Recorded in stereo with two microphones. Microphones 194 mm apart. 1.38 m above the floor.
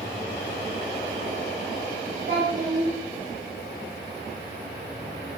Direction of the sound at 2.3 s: 65° right (ahead or behind).